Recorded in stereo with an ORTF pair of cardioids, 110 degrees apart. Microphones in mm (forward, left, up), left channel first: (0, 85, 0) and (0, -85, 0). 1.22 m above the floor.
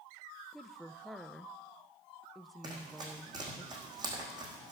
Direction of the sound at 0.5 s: Straight ahead.